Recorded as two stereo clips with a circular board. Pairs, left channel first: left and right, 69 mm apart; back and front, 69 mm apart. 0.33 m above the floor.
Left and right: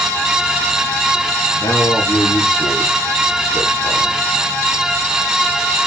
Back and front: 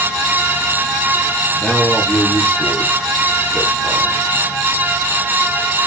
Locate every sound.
1.6 s a man speaking: 110° left, 7.5 m